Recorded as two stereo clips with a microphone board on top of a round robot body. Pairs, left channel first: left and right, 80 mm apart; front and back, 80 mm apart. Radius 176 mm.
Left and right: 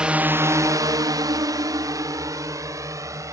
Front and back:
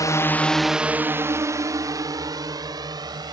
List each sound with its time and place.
0.0 s a drone: 15° right; by 3.3 s 140° right